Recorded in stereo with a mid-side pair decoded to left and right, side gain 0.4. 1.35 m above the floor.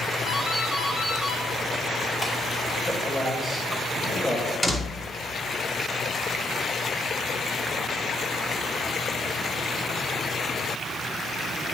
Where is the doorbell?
15° left, 4.5 m.